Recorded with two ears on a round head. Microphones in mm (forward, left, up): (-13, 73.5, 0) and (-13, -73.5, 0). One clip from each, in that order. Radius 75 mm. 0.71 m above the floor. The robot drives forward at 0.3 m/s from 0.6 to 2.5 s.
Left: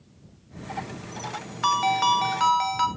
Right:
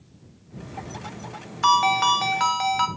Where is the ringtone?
5° right (ahead or behind), 0.6 m.